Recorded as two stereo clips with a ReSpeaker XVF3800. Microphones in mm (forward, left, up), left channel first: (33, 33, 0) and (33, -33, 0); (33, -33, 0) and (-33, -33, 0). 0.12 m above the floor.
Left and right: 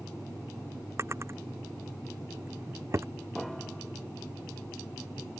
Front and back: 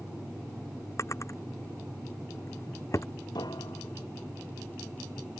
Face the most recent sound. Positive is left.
turn(degrees=0)